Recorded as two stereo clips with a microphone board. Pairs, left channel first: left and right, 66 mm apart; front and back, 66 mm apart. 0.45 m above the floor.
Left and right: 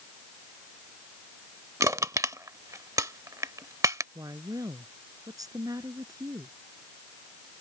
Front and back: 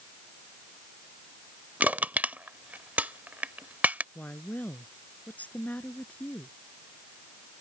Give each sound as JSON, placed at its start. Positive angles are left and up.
{"t": 1.8, "sound": "crushing", "azimuth_deg": -115}
{"t": 4.2, "sound": "a woman speaking", "azimuth_deg": -65}